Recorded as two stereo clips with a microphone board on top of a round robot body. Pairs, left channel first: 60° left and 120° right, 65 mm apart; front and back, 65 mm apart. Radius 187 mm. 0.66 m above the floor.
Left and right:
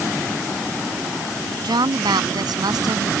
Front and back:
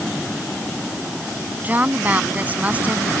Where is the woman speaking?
115° right; by 3.1 s 110° right.